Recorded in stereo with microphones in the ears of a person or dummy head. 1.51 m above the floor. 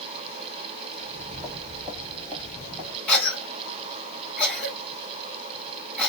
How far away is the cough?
About 1.9 m.